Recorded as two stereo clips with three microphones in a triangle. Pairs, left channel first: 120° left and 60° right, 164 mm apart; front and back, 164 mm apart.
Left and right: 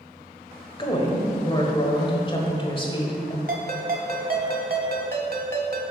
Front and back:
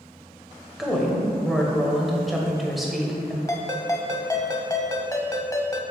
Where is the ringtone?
70° right, 0.9 m.